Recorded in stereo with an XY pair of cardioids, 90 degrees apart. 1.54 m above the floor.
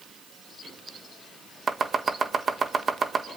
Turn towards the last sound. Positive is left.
turn(degrees=-40)